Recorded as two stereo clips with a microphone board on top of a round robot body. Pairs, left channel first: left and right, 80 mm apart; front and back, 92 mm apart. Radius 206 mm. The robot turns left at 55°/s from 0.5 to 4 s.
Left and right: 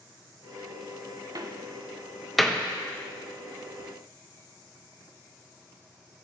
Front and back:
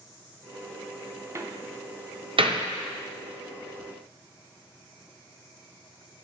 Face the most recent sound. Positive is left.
turn(degrees=90)